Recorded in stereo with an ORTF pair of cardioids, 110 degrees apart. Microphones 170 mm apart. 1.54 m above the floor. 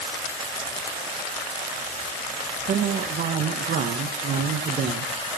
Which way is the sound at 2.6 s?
50° right.